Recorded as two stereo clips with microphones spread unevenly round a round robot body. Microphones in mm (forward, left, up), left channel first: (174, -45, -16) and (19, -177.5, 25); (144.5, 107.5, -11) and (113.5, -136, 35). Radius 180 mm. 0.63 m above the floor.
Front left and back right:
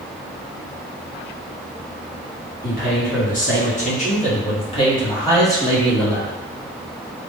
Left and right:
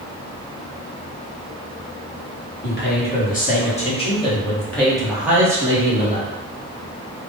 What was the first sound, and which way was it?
A man speaking, 60° left.